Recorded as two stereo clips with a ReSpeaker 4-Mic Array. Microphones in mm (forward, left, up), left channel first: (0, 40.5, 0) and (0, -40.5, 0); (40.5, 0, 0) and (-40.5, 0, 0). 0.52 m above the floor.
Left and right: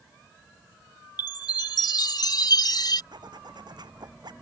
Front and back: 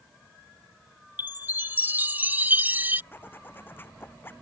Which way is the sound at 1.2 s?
115° left.